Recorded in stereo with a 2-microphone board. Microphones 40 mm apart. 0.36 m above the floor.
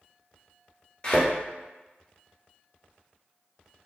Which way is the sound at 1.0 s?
20° left (ahead or behind).